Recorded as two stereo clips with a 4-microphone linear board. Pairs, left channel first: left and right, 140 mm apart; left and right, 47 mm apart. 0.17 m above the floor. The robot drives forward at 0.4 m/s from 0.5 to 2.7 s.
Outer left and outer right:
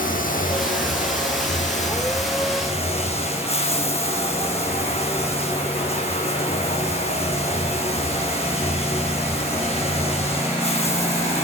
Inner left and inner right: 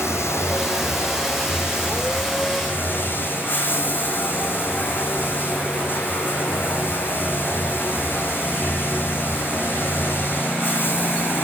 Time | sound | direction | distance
0.0 | running water | 80° left | 1.1 m